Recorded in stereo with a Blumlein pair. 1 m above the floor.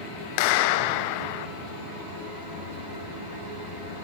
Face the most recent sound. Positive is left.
turn(degrees=45)